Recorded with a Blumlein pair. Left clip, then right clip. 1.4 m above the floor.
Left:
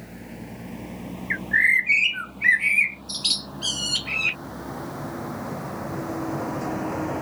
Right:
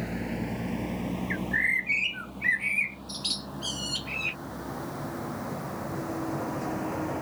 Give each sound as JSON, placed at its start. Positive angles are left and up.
{"t": 0.0, "sound": "a vehicle", "azimuth_deg": -25}
{"t": 1.3, "sound": "a bird", "azimuth_deg": 70}